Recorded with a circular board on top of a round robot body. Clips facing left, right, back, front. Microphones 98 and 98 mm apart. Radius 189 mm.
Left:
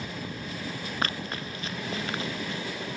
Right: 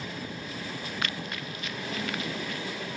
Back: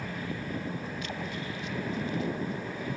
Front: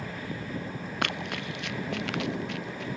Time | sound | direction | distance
1.0 | running footsteps | 30° left | ?